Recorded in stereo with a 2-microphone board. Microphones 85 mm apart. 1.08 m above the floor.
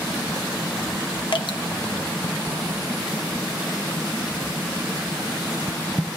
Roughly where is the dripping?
Left.